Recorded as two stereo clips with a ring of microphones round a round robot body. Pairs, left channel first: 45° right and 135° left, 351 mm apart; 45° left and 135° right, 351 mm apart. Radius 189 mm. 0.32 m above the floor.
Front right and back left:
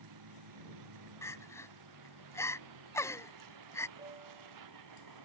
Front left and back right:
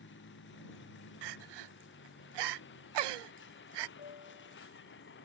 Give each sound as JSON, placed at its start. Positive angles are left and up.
{"t": 0.0, "sound": "a vehicle", "azimuth_deg": 105}
{"t": 1.2, "sound": "crying", "azimuth_deg": -125}
{"t": 4.0, "sound": "a piano", "azimuth_deg": 65}